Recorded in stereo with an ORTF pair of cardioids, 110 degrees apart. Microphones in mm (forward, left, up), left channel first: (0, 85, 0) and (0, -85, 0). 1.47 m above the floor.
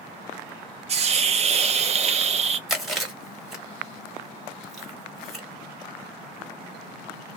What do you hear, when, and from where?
0.9 s a hiss: 40° right, 0.7 m
2.7 s chewing: straight ahead, 1.5 m